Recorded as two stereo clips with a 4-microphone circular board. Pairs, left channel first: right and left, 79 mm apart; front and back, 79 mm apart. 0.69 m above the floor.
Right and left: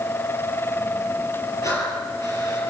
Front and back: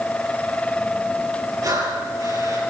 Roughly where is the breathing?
Behind right.